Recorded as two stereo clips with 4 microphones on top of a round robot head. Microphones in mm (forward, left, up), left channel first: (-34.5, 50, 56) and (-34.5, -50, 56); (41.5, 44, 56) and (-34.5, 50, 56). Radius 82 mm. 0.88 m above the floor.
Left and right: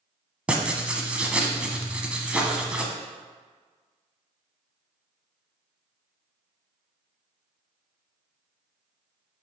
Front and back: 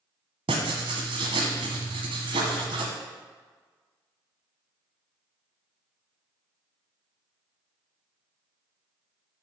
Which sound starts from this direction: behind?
Writing, at 0.5 s.